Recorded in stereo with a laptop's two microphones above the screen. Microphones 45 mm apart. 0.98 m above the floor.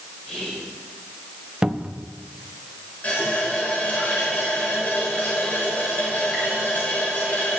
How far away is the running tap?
About 2.5 m.